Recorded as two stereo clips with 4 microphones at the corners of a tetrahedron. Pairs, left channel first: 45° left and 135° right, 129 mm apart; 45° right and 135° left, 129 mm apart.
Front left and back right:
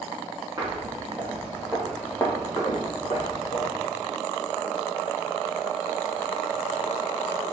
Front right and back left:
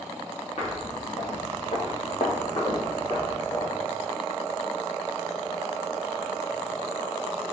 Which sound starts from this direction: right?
Footsteps, at 0.6 s.